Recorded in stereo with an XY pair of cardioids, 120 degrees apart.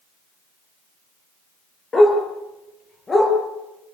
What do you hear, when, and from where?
1.9 s a dog barking: 30° left, 9 m; by 3.3 s 20° left, 8.5 m